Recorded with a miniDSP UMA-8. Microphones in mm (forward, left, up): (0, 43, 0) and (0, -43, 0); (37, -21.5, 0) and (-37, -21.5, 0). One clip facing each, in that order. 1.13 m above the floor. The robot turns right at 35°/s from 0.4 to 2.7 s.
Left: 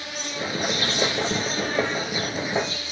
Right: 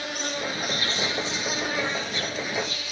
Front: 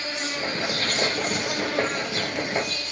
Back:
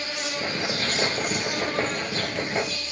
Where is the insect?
50° right, 2.5 m; by 2.9 s 30° left, 2.5 m.